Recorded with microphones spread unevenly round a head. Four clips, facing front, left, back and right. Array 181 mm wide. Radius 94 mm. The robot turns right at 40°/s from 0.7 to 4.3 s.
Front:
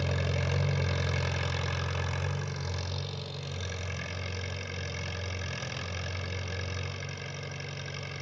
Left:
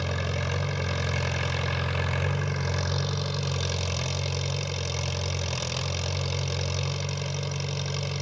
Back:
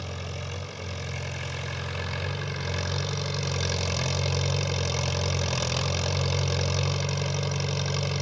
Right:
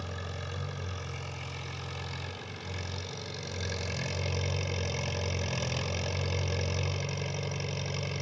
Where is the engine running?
40° left, 1.2 m; by 8.2 s 175° right, 1.2 m.